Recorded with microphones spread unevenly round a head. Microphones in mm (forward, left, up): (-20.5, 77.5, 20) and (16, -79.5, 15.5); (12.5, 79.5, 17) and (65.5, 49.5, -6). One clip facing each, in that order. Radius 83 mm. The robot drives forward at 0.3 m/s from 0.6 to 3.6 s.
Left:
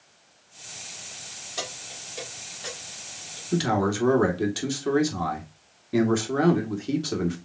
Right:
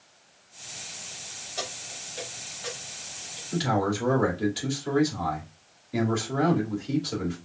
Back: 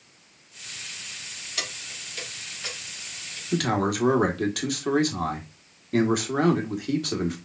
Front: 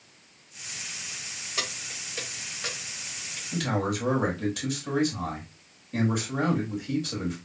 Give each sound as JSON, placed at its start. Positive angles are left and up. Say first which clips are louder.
{"t": 1.6, "sound": "keys jangling", "louder": "even, front 1 dB", "azimuth_deg": 35, "distance_m": 3.0}
{"t": 3.5, "sound": "a man speaking", "louder": "left 2 dB, back 4 dB", "azimuth_deg": 130, "distance_m": 1.6}